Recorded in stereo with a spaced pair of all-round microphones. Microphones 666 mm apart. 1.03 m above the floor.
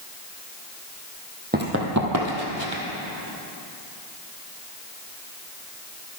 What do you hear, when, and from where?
1.5 s running footsteps: 15° right (ahead or behind), 2 m; by 2.8 s 45° right (ahead or behind), 1.8 m